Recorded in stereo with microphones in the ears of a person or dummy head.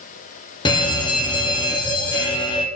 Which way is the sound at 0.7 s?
20° left (ahead or behind).